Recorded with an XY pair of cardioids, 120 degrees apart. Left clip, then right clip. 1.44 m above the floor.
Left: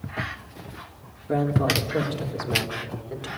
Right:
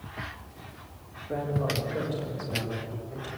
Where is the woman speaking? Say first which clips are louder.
Left 7 dB; 60° left, 3 m; by 3.3 s 70° left, 4.5 m.